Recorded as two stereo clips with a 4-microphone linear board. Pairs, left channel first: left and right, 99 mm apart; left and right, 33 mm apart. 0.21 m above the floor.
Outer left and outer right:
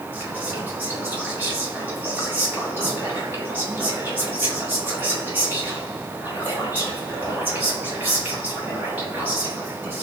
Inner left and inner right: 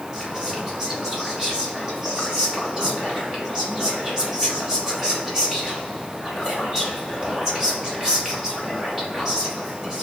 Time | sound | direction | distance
0.1 | whispering | 20° right (ahead or behind) | 1.0 m